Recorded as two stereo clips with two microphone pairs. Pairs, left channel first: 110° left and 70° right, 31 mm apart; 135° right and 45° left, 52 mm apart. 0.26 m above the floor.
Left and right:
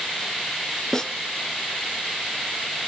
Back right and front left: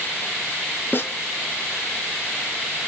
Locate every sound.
0.9 s a snare drum: 175° right, 1.8 m